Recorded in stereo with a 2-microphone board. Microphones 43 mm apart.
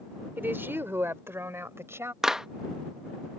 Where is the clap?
15° right (ahead or behind).